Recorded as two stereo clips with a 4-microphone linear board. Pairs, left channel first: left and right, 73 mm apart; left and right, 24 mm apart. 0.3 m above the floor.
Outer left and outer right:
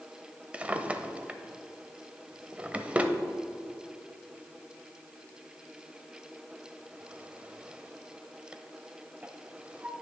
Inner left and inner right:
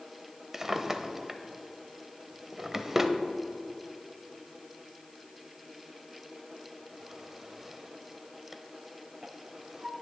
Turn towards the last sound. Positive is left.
turn(degrees=-20)  # may be behind; listen again after turning